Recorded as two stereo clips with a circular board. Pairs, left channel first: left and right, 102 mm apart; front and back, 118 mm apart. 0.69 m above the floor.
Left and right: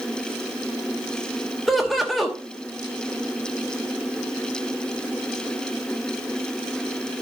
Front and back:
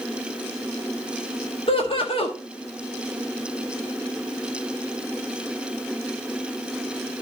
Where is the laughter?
Straight ahead, 1.2 m.